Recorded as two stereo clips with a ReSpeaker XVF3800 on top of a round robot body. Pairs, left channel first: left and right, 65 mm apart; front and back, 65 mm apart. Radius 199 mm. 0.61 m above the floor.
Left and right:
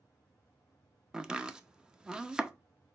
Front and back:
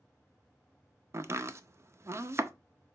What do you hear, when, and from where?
1.1 s chopping: 160° right, 0.7 m